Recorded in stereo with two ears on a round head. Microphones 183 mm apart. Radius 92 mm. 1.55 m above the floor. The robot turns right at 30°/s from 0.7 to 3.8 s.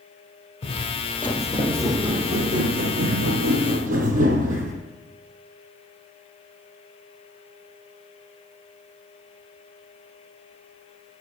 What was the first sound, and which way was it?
Footsteps, 30° left (ahead or behind).